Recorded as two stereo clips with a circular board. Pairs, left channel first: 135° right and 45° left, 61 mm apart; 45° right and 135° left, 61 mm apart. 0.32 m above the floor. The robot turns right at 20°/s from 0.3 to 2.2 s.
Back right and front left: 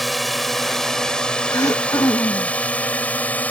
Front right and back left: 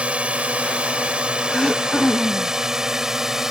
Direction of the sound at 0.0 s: 140° left.